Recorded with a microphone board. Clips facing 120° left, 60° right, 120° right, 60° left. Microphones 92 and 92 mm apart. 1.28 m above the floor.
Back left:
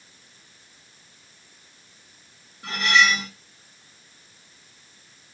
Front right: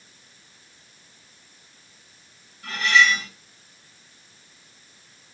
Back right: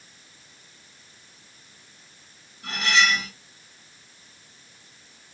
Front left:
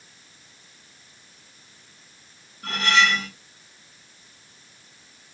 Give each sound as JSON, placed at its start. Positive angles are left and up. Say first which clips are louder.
{"t": 2.6, "sound": "cutlery clinking", "louder": "front right 1 dB, front left 2 dB", "azimuth_deg": 60, "distance_m": 1.7}